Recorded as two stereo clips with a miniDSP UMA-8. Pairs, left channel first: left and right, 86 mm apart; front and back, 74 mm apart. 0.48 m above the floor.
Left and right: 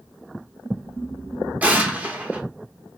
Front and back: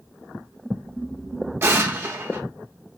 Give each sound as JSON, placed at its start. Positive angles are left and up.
{"t": 1.6, "sound": "an explosion", "azimuth_deg": -150, "distance_m": 0.9}